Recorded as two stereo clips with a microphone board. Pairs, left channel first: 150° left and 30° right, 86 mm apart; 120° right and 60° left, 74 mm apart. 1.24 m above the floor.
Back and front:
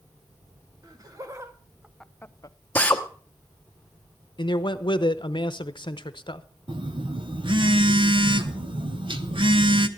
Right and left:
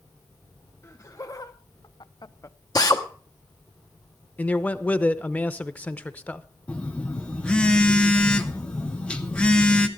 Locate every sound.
0.8 s laughter: 70° right, 1.6 m; by 2.6 s 175° right, 0.7 m
2.8 s a drill: 140° right, 1.1 m
4.4 s a man speaking: 170° left, 0.8 m
6.7 s a phone buzzing: 45° right, 0.8 m